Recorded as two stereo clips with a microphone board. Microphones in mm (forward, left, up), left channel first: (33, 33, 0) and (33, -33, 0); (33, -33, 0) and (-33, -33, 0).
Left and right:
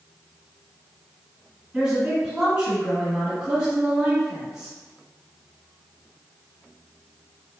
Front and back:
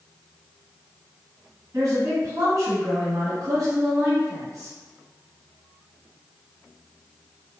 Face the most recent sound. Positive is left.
turn(degrees=-170)